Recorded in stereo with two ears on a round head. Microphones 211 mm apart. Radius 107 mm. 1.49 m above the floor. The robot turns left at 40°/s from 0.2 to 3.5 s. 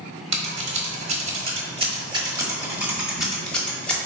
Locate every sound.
0.3 s scissors: 25° right (ahead or behind), 1.1 m; by 4.0 s 5° left (ahead or behind), 1.1 m